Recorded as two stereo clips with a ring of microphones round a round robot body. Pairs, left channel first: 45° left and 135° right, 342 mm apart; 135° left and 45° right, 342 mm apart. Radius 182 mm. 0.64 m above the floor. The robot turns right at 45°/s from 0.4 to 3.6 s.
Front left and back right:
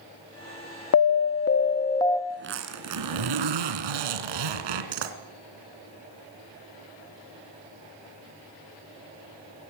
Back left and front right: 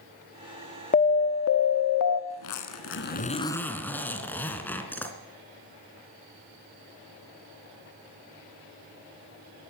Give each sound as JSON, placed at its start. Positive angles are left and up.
{"t": 0.9, "sound": "an alarm", "azimuth_deg": 75, "distance_m": 1.3}
{"t": 2.3, "sound": "a zipper", "azimuth_deg": 160, "distance_m": 2.5}